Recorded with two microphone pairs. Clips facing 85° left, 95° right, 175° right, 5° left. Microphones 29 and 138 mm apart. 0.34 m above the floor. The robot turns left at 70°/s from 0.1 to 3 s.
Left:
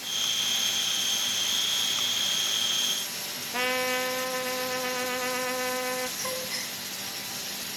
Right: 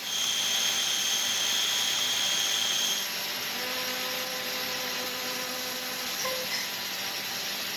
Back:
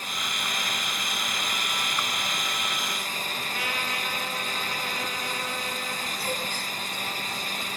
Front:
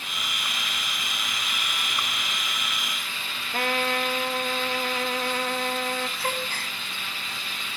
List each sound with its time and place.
3.5 s a trumpet: 40° left, 1.5 m
6.2 s a gasp: 15° right, 2.5 m